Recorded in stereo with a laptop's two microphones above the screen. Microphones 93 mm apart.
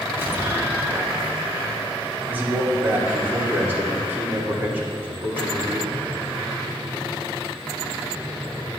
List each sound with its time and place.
0.2 s an explosion: 20° right (ahead or behind), 1.6 m
2.3 s a man speaking: 20° right (ahead or behind), 2.5 m